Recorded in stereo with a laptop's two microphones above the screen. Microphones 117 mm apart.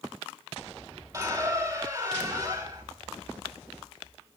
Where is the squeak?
30° right (ahead or behind), 4 m.